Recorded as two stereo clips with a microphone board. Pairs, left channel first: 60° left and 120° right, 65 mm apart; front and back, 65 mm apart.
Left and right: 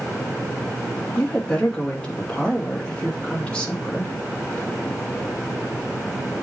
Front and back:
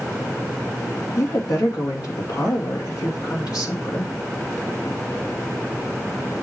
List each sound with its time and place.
1.2 s a woman speaking: 10° right, 2 m